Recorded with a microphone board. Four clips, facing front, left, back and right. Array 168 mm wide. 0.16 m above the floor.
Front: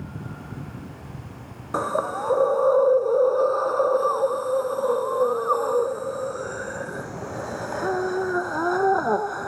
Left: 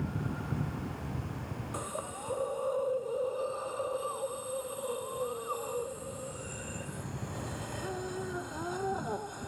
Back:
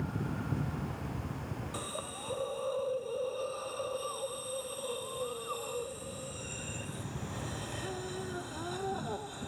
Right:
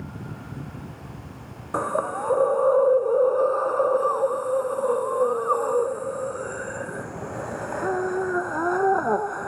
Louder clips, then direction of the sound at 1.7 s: Right 17 dB, front 16 dB; 45° right.